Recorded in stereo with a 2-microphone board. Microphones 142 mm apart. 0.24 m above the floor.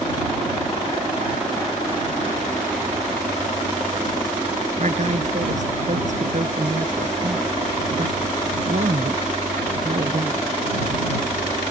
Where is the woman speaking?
60° right (ahead or behind).